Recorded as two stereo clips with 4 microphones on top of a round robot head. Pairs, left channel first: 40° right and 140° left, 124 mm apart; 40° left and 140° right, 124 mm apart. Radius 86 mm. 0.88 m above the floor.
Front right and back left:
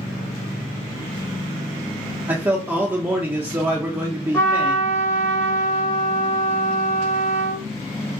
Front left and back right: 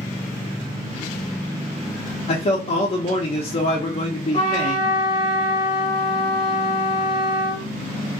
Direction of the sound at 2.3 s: 70° left.